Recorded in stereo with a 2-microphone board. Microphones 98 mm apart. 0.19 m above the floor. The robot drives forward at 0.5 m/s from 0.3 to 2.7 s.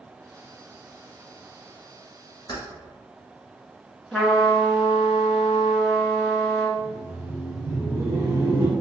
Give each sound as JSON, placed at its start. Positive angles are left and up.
{"t": 2.5, "sound": "keys jangling", "side_deg": 40, "distance_m": 1.6}
{"t": 4.1, "sound": "a trumpet", "side_deg": 10, "distance_m": 1.3}
{"t": 6.8, "sound": "laughter", "side_deg": -30, "distance_m": 1.3}